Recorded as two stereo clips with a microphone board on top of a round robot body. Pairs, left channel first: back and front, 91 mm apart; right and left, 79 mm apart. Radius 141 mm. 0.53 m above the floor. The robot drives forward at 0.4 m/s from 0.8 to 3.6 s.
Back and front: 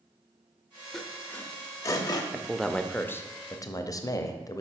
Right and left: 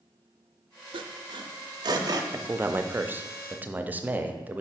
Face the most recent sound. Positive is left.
turn(degrees=150)